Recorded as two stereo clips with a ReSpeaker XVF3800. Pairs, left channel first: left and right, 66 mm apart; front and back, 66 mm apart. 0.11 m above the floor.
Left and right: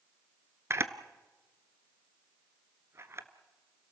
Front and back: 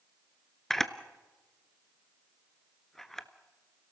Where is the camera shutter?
85° right, 0.8 m.